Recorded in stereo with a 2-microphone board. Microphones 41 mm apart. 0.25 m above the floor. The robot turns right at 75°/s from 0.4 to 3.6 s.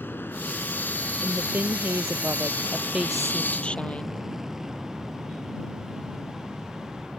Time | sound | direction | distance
0.0 | an aircraft | 60° left (ahead or behind) | ?
1.2 | a woman speaking | 155° right | ?